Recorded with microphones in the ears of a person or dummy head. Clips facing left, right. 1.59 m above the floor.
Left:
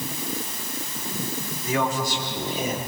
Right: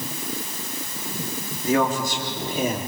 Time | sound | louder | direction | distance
1.6 | a man speaking | right 4 dB | 50° right (ahead or behind) | 4 m